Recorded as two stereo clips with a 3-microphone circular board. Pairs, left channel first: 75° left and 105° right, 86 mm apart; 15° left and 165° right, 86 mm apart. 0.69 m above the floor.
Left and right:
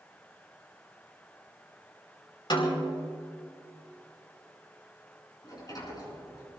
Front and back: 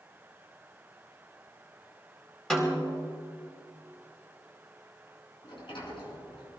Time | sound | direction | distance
2.5 | a snare drum | 95° left | 4.5 m
5.4 | a sliding door | 30° left | 5 m